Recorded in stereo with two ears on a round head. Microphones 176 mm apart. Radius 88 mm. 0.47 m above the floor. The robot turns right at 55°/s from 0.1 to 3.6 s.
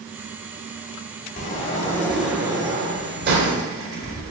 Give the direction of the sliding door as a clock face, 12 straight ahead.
8 o'clock.